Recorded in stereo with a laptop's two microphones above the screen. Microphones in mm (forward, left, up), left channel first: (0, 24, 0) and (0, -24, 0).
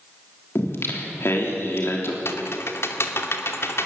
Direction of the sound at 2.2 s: 60° left (ahead or behind).